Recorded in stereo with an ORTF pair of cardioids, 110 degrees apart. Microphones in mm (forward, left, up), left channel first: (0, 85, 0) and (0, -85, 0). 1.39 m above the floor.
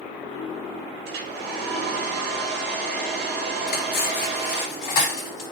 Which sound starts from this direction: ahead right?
A hair dryer, at 1.1 s.